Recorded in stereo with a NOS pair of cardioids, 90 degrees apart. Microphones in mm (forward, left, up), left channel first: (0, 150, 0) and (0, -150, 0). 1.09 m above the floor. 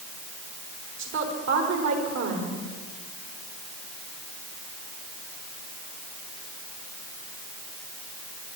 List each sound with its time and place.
1.0 s a woman speaking: 65° right, 4 m